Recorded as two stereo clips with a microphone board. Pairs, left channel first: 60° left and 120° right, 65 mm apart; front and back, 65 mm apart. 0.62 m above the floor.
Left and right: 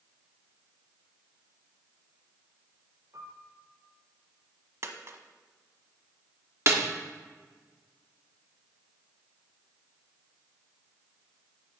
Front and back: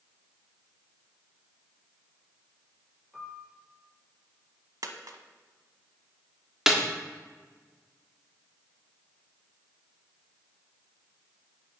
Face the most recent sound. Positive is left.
turn(degrees=-100)